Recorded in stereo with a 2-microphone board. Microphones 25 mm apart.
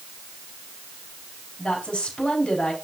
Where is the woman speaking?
50° left (ahead or behind), 5 m.